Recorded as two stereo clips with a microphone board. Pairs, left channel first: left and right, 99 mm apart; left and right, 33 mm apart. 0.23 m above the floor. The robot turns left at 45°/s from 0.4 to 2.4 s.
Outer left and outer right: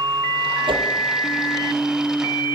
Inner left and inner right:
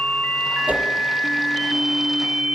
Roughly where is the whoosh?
Right.